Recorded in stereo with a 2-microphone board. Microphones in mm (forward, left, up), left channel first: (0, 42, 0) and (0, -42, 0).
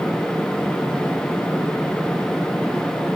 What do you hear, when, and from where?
Only background noise.